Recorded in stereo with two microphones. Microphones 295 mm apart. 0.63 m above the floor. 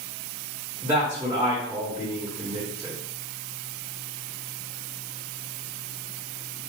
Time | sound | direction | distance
0.8 | a man speaking | 10° right (ahead or behind) | 1.2 m